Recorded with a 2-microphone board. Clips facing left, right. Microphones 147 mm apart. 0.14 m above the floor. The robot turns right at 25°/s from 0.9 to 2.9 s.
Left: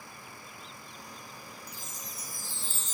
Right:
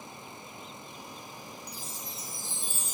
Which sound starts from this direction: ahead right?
A chime, at 1.7 s.